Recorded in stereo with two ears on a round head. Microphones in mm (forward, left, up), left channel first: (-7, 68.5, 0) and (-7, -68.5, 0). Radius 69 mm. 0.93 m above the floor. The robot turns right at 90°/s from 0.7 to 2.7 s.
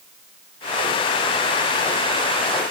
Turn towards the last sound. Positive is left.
No sound to turn to.